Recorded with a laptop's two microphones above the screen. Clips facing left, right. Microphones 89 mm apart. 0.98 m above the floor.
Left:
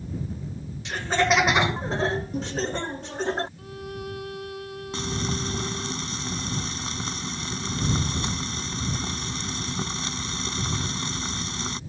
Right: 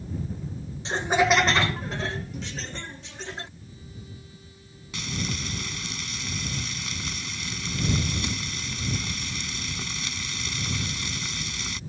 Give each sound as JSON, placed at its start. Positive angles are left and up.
{"t": 0.8, "sound": "laughter", "side_deg": -30}
{"t": 3.6, "sound": "a violin", "side_deg": 75}
{"t": 4.9, "sound": "frying", "side_deg": 35}